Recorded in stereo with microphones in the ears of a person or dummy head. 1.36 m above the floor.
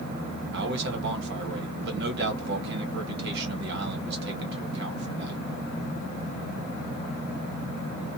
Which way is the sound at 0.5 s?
55° right (ahead or behind).